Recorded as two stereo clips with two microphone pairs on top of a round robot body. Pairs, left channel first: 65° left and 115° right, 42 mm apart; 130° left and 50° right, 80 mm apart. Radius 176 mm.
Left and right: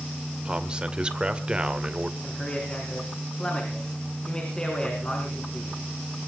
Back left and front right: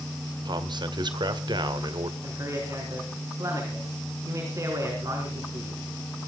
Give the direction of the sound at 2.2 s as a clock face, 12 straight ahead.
12 o'clock.